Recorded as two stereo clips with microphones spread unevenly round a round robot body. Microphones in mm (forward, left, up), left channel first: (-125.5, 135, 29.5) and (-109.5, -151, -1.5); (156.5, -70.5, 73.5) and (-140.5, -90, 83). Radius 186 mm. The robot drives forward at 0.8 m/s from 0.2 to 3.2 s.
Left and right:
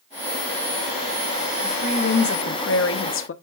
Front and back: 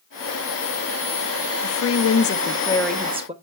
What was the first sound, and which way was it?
A woman speaking, 25° left.